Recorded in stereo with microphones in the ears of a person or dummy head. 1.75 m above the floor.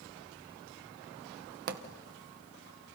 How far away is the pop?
About 1.7 m.